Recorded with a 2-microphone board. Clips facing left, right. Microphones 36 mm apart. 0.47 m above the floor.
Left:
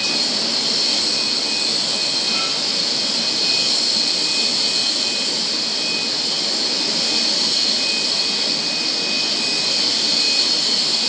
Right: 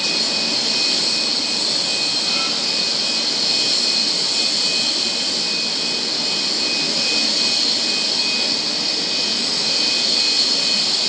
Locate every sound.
Only background noise.